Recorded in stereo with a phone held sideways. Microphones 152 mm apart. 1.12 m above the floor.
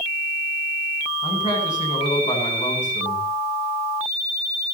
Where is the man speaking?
50° left (ahead or behind), 8.5 m.